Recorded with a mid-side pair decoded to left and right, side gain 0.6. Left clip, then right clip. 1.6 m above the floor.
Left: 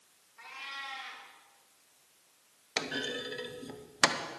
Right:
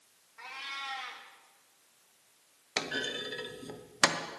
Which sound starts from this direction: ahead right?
A cat meowing, at 0.4 s.